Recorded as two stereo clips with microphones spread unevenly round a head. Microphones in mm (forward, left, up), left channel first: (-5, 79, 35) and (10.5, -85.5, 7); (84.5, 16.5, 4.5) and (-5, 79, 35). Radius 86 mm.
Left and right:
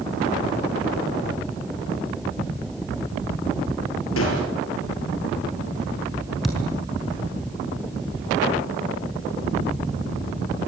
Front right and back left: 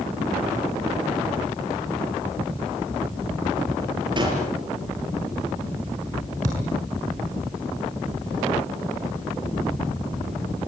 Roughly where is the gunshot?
Left.